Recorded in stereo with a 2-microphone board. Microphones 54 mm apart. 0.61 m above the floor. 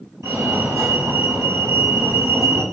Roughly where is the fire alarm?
Right.